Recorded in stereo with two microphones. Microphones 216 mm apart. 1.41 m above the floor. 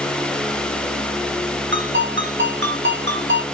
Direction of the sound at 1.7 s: 55° right (ahead or behind).